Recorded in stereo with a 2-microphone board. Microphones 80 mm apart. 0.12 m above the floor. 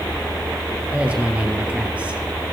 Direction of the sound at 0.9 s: 15° right (ahead or behind).